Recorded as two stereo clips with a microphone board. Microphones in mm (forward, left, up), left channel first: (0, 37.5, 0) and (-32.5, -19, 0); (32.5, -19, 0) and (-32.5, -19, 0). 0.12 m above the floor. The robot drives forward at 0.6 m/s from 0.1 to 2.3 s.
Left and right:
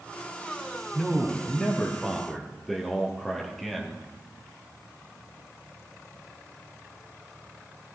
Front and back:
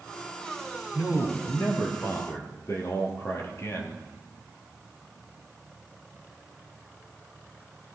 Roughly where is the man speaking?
Ahead.